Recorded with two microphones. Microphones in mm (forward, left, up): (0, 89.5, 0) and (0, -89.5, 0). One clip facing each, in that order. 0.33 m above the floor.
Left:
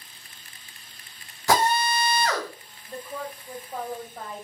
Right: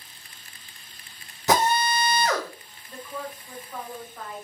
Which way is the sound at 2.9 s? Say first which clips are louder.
Left 1 dB; 35° left (ahead or behind).